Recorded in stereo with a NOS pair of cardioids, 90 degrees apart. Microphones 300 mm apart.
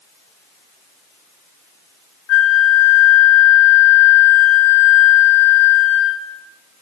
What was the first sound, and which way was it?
A flute, 60° left.